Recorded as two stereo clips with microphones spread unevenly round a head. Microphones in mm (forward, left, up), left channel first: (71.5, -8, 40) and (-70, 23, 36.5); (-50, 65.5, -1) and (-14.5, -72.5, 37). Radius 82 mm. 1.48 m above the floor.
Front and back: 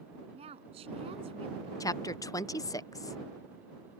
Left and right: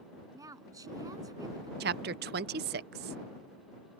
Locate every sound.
0.3 s a woman speaking: 140° right
1.8 s a woman speaking: 80° right